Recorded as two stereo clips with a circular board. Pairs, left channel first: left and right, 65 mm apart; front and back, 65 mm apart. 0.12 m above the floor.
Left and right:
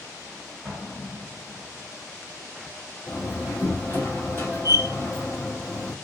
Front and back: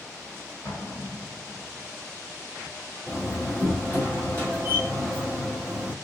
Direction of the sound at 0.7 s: 10° right.